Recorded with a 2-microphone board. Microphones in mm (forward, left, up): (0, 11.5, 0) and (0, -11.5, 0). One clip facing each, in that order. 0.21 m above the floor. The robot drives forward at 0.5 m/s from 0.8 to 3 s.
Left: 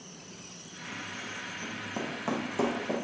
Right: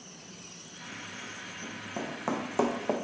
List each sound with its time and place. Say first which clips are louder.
1.6 s running footsteps: even; 10° left (ahead or behind), 1.3 m; by 2.9 s 50° right (ahead or behind), 0.9 m